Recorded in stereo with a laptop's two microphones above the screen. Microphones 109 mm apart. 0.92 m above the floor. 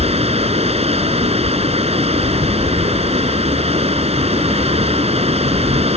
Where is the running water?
65° right (ahead or behind).